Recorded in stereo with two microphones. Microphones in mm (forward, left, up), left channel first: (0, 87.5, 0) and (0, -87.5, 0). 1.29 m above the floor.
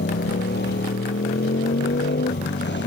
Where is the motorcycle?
85° left.